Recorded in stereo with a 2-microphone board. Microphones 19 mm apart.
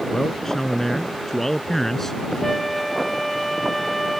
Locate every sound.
0.1 s a man speaking: 15° left (ahead or behind)
2.4 s a flute: centre (ahead or behind)